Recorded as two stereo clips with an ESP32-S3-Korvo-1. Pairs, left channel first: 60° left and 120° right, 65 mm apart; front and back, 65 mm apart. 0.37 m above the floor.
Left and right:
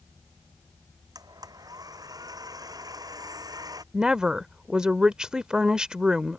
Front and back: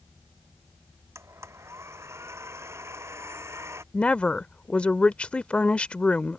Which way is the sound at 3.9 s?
55° right.